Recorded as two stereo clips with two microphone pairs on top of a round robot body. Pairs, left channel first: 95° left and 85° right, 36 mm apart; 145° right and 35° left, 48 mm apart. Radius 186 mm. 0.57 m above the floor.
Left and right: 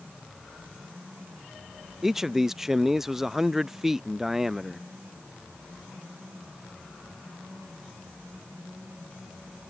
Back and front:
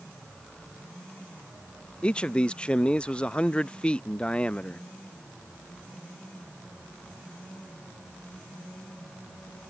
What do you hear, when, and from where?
2.0 s a man speaking: 155° right